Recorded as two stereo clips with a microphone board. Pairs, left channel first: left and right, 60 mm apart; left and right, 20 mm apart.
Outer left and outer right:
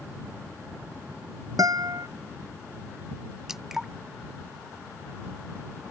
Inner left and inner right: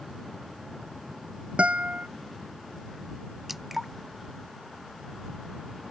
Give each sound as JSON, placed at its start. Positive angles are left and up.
{"t": 1.6, "sound": "a guitar", "side_deg": -85}
{"t": 3.5, "sound": "dripping", "side_deg": -5}